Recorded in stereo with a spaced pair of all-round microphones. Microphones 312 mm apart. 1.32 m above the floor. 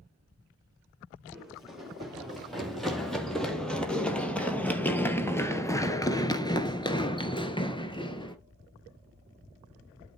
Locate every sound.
1.3 s running footsteps: centre (ahead or behind), 3.5 m; by 8.4 s 15° left (ahead or behind), 1.6 m